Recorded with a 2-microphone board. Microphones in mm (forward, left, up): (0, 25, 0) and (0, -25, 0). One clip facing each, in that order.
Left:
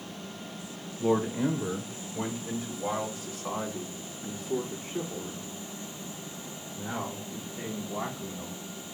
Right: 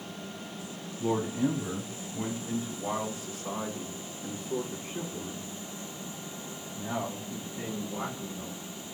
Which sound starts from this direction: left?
A man speaking, at 1.0 s.